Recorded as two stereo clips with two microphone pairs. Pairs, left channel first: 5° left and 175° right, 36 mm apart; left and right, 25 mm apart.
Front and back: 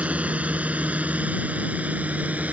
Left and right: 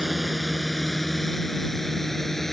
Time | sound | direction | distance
0.0 | a drone | straight behind | ?